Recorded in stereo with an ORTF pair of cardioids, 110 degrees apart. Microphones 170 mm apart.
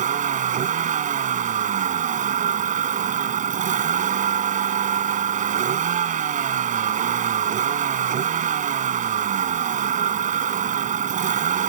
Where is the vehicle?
50° right.